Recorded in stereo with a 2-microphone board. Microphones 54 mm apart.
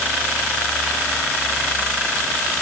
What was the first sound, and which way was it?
Only background noise.